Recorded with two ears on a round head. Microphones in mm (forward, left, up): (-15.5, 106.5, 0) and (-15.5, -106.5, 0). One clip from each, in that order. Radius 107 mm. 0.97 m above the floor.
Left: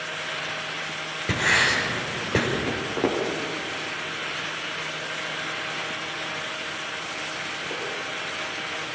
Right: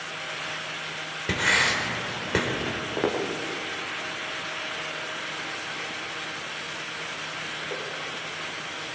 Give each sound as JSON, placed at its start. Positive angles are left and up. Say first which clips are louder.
{"t": 1.3, "sound": "writing", "louder": "left 2 dB", "side_deg": -25, "distance_m": 4.5}
{"t": 2.7, "sound": "footsteps", "louder": "left 2 dB", "side_deg": -30, "distance_m": 6.0}